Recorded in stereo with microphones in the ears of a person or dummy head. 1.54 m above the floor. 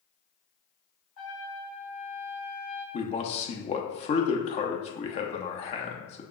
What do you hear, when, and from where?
1.2 s a trumpet: 65° left (ahead or behind), 2.0 m
2.9 s a man speaking: 35° left (ahead or behind), 0.7 m